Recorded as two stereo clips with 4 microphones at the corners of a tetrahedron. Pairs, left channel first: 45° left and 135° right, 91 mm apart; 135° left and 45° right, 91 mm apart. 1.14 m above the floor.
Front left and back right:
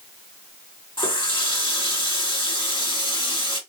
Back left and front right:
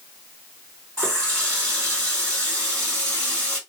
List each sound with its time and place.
1.0 s a running tap: 55° left, 2 m